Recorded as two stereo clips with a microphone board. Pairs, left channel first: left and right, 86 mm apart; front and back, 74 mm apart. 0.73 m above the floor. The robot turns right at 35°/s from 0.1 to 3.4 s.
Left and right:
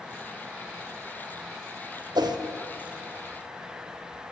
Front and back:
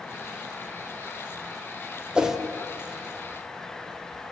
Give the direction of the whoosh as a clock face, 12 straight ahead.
3 o'clock.